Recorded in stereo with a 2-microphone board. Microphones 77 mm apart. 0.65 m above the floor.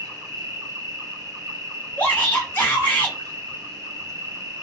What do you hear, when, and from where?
0.0 s an insect: 50° right (ahead or behind), 1.1 m
2.0 s a shout: 25° left (ahead or behind), 0.6 m